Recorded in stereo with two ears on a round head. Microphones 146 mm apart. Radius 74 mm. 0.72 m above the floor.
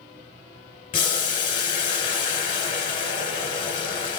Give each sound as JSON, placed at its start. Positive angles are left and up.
{"t": 0.9, "sound": "boiling", "side_deg": 30, "distance_m": 1.7}